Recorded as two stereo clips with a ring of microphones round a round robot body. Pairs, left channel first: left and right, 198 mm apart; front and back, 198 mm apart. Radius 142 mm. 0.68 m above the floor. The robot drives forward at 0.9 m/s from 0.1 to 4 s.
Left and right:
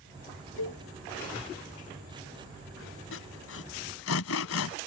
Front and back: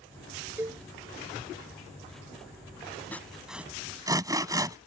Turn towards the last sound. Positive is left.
turn(degrees=105)